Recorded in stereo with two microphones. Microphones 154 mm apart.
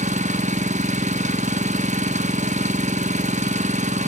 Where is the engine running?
50° right (ahead or behind), 0.8 m.